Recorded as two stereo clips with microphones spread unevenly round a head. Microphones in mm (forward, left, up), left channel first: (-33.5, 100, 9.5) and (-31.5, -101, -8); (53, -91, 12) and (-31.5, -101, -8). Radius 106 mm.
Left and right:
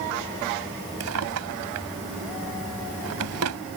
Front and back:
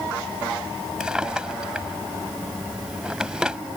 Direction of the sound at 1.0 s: 90° right.